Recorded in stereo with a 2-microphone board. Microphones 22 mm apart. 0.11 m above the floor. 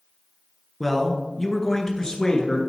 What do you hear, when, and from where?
0.8 s a man speaking: 5° left (ahead or behind), 1.5 m; by 2.6 s 35° left (ahead or behind), 1.7 m